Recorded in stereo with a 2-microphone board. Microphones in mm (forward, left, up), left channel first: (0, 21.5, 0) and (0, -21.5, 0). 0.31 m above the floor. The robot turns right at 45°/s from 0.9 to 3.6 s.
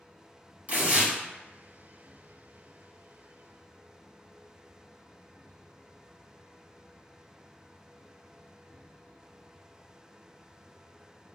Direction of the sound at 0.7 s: 40° right (ahead or behind).